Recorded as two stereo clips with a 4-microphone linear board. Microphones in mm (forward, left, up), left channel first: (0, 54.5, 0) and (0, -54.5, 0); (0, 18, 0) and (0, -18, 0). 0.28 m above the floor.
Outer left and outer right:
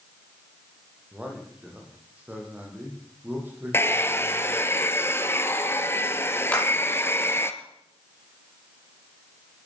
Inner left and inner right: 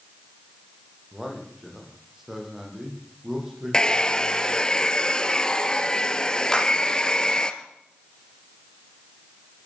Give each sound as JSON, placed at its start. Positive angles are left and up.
{"t": 1.1, "sound": "a man speaking", "side_deg": -10, "distance_m": 9.5}
{"t": 3.7, "sound": "a hair dryer", "side_deg": 25, "distance_m": 1.6}
{"t": 6.5, "sound": "a clap", "side_deg": 10, "distance_m": 9.0}